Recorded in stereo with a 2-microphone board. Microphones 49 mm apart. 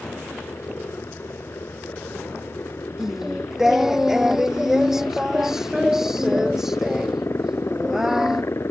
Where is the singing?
10° right (ahead or behind).